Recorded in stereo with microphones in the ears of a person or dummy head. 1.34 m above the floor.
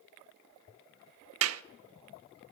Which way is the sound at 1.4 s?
80° right.